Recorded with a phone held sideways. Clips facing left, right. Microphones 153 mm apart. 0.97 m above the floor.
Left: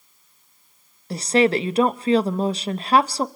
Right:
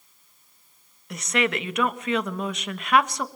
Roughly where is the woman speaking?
Left.